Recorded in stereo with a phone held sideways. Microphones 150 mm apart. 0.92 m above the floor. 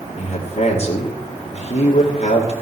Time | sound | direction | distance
0.2 | a man speaking | 45° left (ahead or behind) | 2 m